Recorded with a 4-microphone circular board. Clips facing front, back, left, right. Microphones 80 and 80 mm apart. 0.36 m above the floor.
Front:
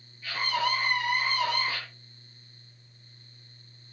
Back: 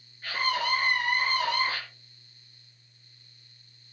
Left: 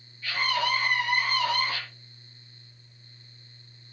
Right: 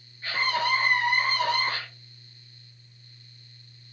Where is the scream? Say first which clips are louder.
Even, right 1 dB; 140° right, 7.5 m; by 1.8 s 120° right, 7.5 m.